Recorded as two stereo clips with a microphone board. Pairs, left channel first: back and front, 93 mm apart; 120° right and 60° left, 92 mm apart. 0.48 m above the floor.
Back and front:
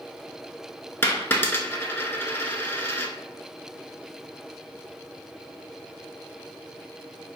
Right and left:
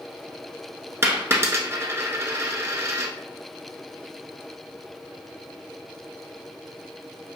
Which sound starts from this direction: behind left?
A dropped coin, at 1.0 s.